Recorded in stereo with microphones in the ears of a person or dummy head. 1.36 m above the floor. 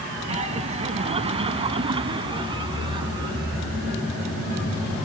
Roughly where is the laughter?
Right.